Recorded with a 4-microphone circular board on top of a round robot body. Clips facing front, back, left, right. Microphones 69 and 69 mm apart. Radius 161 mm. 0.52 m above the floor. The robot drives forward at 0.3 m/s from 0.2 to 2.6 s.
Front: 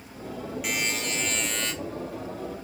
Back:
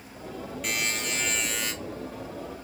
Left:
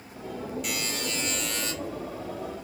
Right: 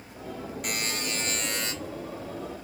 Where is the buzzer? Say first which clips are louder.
Even, even; 80° right, 1.3 m; by 1.7 s 100° right, 1.3 m.